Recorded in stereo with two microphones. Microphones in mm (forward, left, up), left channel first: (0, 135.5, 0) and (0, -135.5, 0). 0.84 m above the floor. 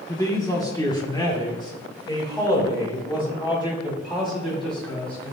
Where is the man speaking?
15° left (ahead or behind), 1.6 m; by 5.3 s 20° left (ahead or behind), 5 m.